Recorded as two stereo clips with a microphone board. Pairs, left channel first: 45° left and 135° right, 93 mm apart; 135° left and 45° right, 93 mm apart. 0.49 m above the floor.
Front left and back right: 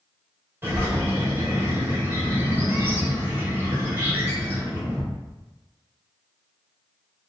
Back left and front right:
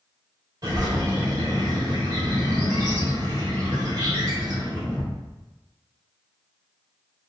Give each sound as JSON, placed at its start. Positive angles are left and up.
{"t": 0.6, "sound": "a bird", "azimuth_deg": -80, "distance_m": 2.5}